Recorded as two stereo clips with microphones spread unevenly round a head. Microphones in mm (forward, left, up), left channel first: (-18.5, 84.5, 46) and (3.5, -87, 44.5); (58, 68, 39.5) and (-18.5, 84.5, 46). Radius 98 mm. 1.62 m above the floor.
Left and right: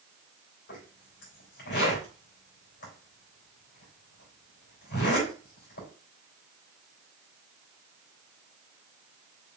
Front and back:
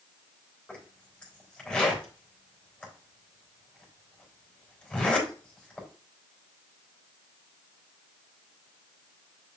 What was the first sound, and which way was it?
A zipper, 65° left.